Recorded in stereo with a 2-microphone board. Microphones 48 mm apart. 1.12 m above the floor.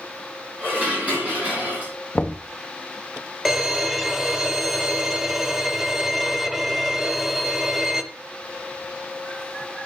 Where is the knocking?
20° left (ahead or behind), 0.7 m.